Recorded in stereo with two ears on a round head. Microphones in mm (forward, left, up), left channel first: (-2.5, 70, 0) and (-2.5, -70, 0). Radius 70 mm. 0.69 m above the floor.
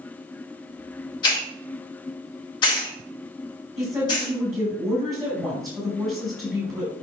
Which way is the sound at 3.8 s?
25° right (ahead or behind).